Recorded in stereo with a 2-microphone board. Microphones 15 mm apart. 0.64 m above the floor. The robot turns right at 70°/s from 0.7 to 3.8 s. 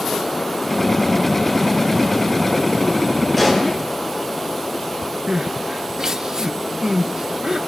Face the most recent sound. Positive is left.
turn(degrees=-40)  # may be behind; listen again after turning